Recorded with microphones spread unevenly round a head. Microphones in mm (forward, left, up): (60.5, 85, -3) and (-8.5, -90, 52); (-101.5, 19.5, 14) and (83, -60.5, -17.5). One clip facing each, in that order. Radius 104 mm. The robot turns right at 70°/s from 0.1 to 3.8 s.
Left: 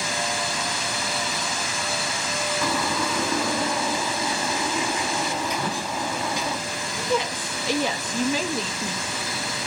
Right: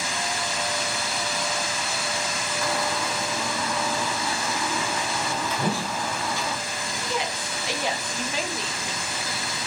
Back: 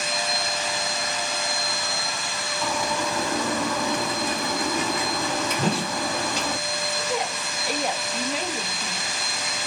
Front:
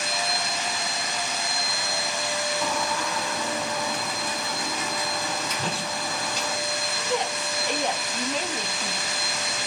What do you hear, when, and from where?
2.6 s a bird: 70° left, 1.7 m; by 6.6 s 150° left, 1.7 m
5.6 s a whoosh: 170° right, 1.1 m
7.0 s a woman speaking: 75° left, 2 m